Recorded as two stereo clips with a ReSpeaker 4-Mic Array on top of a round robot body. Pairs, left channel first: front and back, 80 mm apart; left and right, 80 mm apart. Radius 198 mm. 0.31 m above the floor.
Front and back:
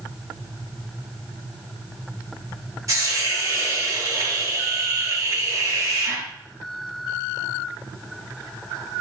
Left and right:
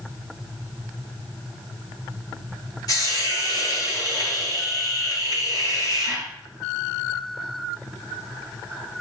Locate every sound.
2.9 s a hiss: 130° left, 4 m